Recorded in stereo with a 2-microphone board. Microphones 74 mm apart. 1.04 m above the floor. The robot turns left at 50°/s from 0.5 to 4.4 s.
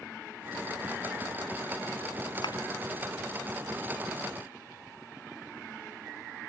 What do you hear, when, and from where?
2.4 s a thud: 75° left (ahead or behind); by 2.6 s 80° left